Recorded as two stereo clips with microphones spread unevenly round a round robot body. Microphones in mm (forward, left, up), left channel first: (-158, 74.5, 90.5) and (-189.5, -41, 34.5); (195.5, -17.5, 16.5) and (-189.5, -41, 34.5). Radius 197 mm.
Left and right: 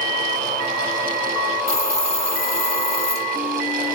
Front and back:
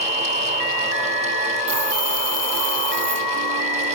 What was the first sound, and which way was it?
A hiss, 130° left.